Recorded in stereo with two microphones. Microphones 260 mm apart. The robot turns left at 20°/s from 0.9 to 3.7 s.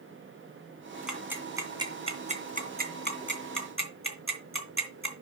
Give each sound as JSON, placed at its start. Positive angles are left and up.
{"t": 1.1, "sound": "ticking", "side_deg": -5, "distance_m": 2.5}